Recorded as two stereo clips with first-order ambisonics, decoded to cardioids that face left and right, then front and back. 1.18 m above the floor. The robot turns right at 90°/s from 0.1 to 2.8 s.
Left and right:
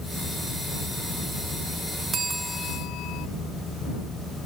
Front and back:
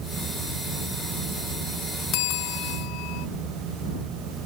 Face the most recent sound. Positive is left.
turn(degrees=40)